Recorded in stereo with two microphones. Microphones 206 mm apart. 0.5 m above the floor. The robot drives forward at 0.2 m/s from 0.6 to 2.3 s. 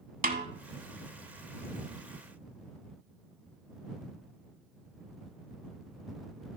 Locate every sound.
0.2 s a snare drum: 45° right (ahead or behind), 0.8 m